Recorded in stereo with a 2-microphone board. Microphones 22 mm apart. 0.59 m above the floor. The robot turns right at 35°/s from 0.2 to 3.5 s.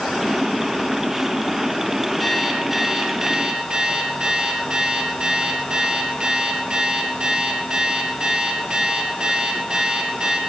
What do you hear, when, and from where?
2.2 s an alarm clock: 175° left, 6 m; by 10.4 s 140° right, 6 m